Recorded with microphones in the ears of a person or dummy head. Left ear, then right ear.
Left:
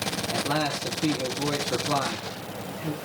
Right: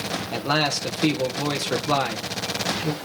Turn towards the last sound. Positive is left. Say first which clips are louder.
# right 5 dB
turn(degrees=-65)  # may be behind; listen again after turning